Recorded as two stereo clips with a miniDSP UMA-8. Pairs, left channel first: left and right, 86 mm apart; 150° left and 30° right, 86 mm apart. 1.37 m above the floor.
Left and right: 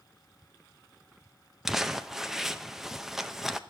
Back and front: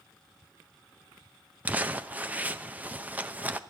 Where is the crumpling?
15° right, 0.5 m.